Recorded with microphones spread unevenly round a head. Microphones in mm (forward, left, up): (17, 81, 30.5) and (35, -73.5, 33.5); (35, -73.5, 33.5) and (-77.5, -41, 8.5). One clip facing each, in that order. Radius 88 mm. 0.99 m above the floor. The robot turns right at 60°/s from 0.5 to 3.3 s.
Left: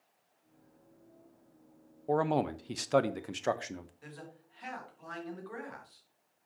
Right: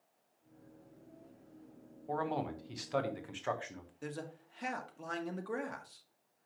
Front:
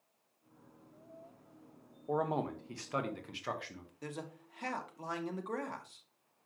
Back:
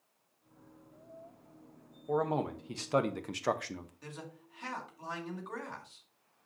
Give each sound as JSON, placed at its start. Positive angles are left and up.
{"t": 2.1, "sound": "a man speaking", "azimuth_deg": 65, "distance_m": 0.7}
{"t": 4.0, "sound": "a man speaking", "azimuth_deg": -55, "distance_m": 1.5}